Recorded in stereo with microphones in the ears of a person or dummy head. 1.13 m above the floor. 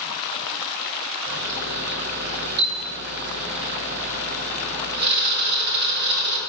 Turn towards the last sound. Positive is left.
turn(degrees=-55)  # may be behind; listen again after turning